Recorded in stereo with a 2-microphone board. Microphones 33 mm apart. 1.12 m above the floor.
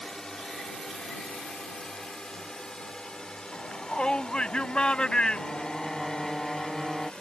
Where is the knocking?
I don't hear knocking.